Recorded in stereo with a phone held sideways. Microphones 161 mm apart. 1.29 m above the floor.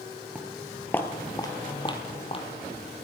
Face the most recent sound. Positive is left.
turn(degrees=35)  # may be behind; listen again after turning